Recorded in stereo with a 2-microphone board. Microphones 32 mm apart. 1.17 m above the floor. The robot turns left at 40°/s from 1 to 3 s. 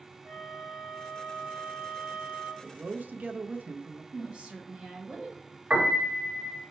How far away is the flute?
About 1.1 m.